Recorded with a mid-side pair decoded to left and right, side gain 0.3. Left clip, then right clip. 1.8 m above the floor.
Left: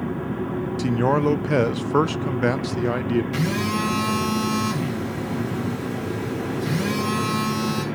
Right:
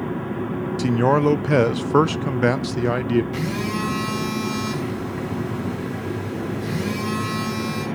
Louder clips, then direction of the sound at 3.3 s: Left 2 dB; 50° left.